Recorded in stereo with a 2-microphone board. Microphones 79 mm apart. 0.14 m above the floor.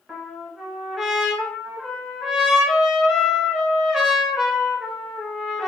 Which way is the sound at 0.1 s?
Centre (ahead or behind).